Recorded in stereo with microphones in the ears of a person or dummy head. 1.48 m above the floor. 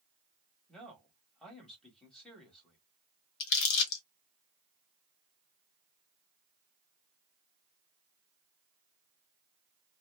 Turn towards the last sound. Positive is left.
turn(degrees=60)  # may be behind; listen again after turning